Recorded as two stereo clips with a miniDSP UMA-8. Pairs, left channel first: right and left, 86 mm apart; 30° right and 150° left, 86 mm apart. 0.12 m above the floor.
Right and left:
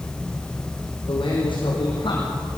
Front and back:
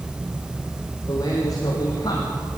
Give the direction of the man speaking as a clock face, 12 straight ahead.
3 o'clock.